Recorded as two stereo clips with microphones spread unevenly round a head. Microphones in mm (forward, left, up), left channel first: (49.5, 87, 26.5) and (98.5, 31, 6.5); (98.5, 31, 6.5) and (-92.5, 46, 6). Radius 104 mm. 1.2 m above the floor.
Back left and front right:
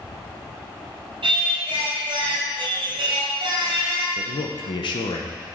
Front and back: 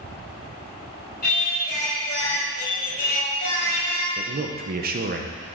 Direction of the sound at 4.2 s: 145° left.